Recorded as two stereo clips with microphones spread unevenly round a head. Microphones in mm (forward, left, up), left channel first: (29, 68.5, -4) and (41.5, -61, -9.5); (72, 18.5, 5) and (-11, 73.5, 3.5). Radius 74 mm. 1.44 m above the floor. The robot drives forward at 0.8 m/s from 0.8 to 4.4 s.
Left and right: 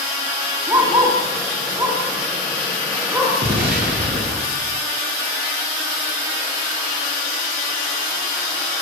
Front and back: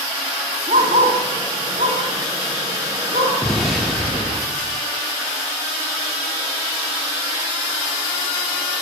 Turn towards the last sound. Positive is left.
turn(degrees=-125)